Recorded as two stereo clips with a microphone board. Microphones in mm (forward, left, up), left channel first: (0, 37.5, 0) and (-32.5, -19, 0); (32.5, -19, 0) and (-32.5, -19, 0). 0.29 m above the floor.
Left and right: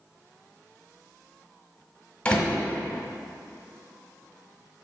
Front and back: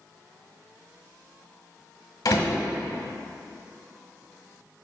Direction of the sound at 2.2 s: 5° right.